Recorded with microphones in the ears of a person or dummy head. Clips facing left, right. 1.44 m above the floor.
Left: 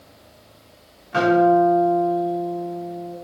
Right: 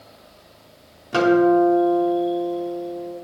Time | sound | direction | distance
1.1 | a guitar | 55° right (ahead or behind) | 3 m